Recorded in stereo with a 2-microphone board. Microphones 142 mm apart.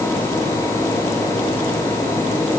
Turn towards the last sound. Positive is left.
No sound to turn to.